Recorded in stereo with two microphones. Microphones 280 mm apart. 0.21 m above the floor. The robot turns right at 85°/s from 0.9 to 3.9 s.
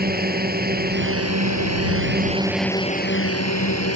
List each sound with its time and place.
0.0 s a drone: 145° right; by 4.0 s 110° left